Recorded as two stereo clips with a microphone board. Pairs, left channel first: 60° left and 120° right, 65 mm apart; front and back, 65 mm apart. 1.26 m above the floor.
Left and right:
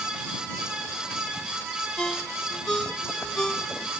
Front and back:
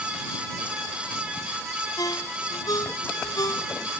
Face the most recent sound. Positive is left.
turn(degrees=-20)